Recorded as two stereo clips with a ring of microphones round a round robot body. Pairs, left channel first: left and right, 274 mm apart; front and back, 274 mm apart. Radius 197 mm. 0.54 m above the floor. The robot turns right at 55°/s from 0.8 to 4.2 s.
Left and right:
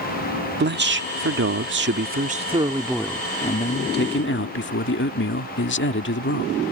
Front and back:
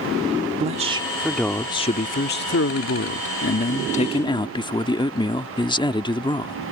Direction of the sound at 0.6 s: 120° right.